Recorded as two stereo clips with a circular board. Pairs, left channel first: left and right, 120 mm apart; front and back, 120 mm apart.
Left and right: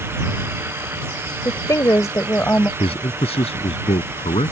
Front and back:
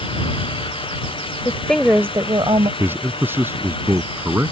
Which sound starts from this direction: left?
A man speaking, at 2.8 s.